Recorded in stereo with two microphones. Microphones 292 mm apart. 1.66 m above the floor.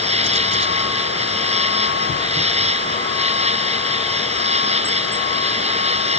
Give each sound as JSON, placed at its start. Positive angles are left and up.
{"t": 0.0, "sound": "an insect", "side_deg": -20}